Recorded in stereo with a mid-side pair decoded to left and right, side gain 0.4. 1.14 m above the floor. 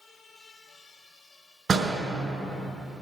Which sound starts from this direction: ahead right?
A door slam, at 1.7 s.